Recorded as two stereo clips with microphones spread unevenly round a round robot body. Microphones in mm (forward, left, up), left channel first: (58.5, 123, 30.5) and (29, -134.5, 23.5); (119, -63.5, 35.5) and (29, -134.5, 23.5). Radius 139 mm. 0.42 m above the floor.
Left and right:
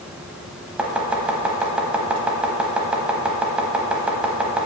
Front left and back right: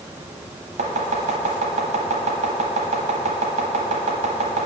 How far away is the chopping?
About 0.7 m.